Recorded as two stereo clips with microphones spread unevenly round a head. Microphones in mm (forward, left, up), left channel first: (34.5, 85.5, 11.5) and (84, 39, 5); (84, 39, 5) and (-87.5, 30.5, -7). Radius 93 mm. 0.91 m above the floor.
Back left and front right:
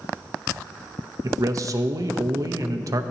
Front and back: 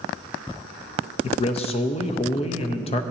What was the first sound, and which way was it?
A man speaking, 55° right.